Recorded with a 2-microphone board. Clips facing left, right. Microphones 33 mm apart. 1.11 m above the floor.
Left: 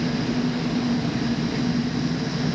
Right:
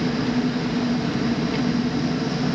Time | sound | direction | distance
0.0 | an engine running | 45° right (ahead or behind) | 0.8 m